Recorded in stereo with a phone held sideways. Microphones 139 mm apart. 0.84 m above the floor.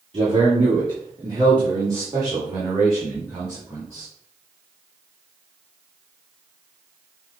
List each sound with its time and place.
0.1 s a man speaking: 40° right (ahead or behind), 2 m; by 4.1 s 15° right (ahead or behind), 4 m